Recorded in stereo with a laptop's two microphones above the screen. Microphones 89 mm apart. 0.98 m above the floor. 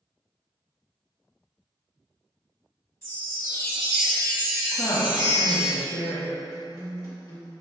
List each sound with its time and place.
3.0 s a chime: 35° left (ahead or behind), 1.0 m
4.7 s a woman speaking: 65° left (ahead or behind), 1.1 m
6.5 s a guitar: 45° left (ahead or behind), 1.6 m